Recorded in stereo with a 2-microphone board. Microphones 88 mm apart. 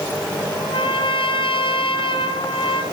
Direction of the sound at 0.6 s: 75° left (ahead or behind).